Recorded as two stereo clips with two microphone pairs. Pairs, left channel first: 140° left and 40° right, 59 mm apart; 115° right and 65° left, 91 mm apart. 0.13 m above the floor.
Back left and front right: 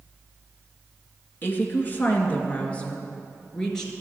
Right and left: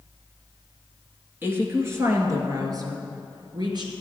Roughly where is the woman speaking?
Behind left.